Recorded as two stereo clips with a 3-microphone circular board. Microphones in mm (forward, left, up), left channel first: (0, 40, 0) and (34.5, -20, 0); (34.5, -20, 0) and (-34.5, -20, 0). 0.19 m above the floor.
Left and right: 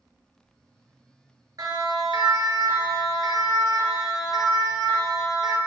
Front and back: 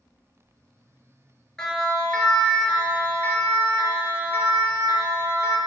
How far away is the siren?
About 4 m.